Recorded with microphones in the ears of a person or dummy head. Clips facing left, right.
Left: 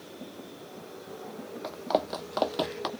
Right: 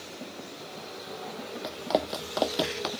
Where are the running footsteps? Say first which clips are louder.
Even; 10° right (ahead or behind); by 2.9 s 5° right (ahead or behind).